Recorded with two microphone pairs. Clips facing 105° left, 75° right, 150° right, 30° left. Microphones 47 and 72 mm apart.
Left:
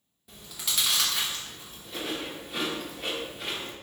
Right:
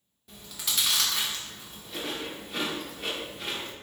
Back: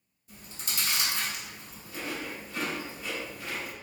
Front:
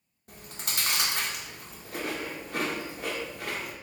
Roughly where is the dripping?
No dripping in this recording.